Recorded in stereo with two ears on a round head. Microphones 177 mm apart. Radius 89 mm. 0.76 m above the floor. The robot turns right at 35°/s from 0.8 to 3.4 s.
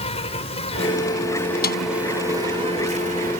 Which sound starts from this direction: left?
A snare drum, at 1.6 s.